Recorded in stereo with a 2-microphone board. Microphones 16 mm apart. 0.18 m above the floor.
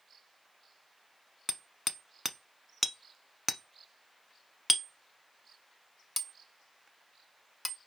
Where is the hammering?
5° left (ahead or behind), 0.8 m.